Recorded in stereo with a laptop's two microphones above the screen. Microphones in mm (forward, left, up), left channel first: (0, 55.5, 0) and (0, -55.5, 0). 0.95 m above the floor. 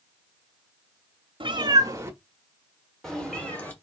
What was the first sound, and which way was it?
A cat meowing, 55° right (ahead or behind).